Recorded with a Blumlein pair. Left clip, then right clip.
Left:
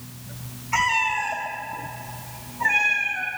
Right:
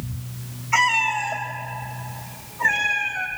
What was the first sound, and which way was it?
A cat meowing, 20° right.